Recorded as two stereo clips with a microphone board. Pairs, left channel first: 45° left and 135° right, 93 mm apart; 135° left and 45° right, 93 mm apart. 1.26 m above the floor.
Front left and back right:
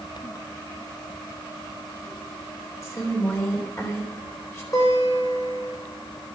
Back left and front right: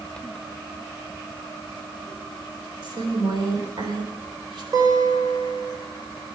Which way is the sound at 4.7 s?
Straight ahead.